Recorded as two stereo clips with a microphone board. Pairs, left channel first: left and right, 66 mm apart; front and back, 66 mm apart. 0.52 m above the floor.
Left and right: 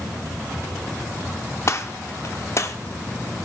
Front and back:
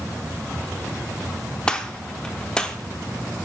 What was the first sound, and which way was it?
A gunshot, 70° left.